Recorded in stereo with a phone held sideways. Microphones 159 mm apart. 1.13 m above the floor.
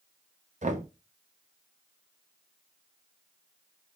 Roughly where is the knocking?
Right.